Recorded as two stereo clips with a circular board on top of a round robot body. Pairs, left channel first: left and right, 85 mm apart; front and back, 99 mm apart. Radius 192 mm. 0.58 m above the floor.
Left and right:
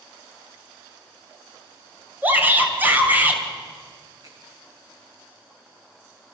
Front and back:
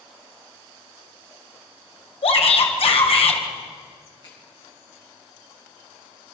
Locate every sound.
2.2 s a shout: 20° right, 3.5 m
4.2 s a finger snap: 50° right, 9 m